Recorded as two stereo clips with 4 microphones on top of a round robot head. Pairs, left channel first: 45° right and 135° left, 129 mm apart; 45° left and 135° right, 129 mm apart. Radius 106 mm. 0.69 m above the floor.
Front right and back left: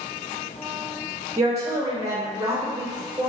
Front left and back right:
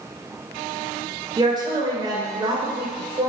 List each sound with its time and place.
1.4 s a woman speaking: 175° right, 0.8 m